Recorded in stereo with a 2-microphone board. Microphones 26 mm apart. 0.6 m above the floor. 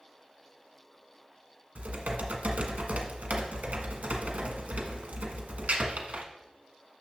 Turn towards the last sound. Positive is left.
turn(degrees=-70)  # may be behind; listen again after turning